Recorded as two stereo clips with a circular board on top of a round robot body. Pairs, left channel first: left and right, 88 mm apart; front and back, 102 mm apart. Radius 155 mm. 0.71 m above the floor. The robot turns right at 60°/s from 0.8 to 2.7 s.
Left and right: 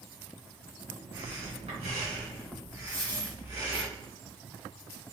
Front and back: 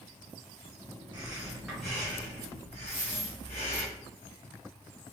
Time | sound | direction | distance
1.1 | breathing | 130° right | 2 m
2.9 | a dropped coin | 15° left | 2.0 m